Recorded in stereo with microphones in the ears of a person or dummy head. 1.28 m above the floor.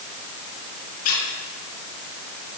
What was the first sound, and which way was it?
A squeak, 50° left (ahead or behind).